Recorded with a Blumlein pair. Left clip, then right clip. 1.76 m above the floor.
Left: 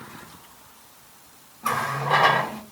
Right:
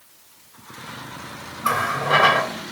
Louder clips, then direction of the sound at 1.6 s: Right 3 dB; 20° right.